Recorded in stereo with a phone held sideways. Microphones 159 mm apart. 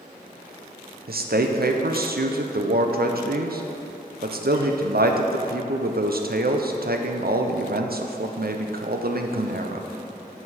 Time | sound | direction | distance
1.1 | a man speaking | 75° right (ahead or behind) | 0.6 m